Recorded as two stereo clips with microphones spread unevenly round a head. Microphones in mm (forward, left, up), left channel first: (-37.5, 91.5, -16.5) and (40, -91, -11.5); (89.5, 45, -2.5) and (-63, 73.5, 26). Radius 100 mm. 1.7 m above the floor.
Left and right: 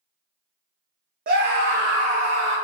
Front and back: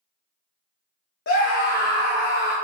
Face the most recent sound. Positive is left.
turn(degrees=-40)